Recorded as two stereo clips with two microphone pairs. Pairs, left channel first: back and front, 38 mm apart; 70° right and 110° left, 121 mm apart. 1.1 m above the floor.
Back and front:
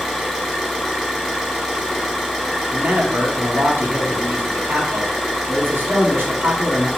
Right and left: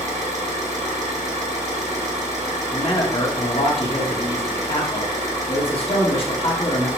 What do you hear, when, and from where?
0.0 s an engine running: 95° left, 1.4 m
2.7 s a man speaking: 30° right, 1.1 m